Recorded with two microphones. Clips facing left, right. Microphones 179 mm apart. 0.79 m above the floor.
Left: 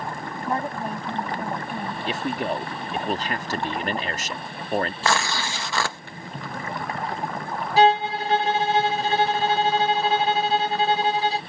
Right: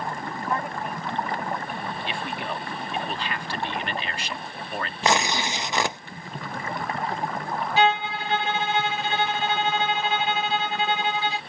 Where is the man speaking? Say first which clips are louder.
Left 9 dB; 45° left (ahead or behind).